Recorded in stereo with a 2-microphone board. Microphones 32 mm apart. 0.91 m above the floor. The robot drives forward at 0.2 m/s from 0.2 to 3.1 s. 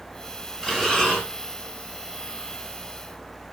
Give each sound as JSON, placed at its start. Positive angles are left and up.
{"t": 0.6, "sound": "breathing", "side_deg": 5, "distance_m": 2.0}